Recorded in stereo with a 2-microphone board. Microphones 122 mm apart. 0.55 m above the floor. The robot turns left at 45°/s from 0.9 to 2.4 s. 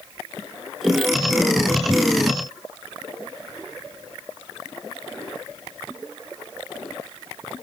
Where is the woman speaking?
No woman speaking in this recording.